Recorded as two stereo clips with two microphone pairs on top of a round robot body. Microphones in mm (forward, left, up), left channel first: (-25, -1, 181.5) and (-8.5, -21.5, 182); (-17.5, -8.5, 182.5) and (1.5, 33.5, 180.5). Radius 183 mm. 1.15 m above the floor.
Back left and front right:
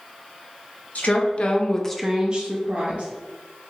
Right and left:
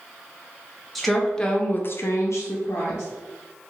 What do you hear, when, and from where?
0.9 s a woman speaking: 155° left, 0.9 m; by 3.1 s 75° right, 0.9 m